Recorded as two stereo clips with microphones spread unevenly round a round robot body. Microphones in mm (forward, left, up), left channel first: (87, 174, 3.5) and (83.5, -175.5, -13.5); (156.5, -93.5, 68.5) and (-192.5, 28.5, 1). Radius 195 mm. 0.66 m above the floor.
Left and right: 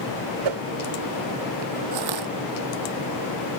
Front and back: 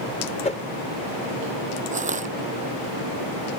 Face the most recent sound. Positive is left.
turn(degrees=-125)